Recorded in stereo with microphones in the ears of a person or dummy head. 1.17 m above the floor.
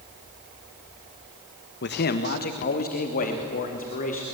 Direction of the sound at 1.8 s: 50° left (ahead or behind).